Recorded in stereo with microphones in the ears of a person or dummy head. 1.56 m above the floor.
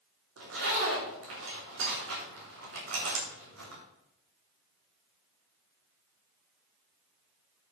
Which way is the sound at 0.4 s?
65° right (ahead or behind).